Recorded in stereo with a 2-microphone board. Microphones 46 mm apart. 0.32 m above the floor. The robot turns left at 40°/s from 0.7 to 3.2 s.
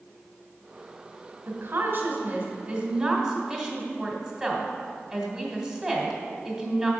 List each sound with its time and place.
1.5 s a woman speaking: 90° right, 1.8 m; by 6.9 s 160° right, 1.8 m